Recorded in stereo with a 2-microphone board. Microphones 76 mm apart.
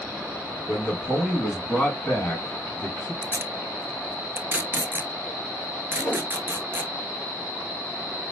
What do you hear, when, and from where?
0.7 s a man speaking: centre (ahead or behind), 1.8 m; by 3.1 s 30° left (ahead or behind), 1.5 m
3.2 s tape being pulled: 35° right (ahead or behind), 0.6 m
6.0 s a whoosh: 15° left (ahead or behind), 1.2 m